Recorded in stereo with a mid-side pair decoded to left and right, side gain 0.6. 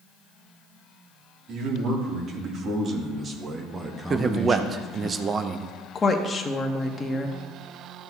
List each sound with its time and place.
1.5 s a man speaking: 55° right, 3.5 m; by 5.1 s 25° left, 1.7 m
4.1 s a man speaking: 30° right, 0.7 m
6.0 s a woman speaking: 30° left, 1.5 m